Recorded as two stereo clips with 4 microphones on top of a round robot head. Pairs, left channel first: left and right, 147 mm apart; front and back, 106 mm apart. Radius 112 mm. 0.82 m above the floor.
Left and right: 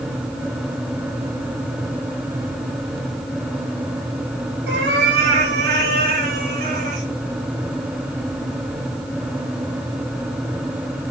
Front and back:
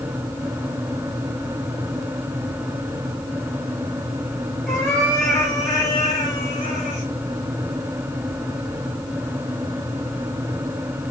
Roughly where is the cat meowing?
Right.